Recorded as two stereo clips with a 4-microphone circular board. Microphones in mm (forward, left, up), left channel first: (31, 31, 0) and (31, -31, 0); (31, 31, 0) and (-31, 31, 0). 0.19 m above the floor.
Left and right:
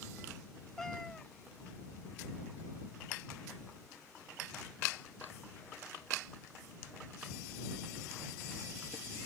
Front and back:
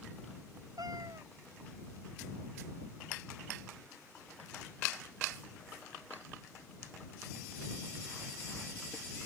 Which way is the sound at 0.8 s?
175° left.